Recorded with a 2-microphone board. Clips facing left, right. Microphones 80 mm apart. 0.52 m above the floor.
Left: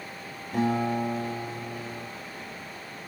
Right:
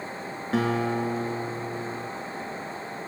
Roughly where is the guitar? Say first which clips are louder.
Right 1 dB; right.